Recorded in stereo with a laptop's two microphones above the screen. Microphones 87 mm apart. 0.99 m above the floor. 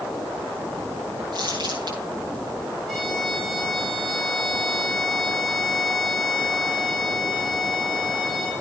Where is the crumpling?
55° right (ahead or behind), 9.5 m.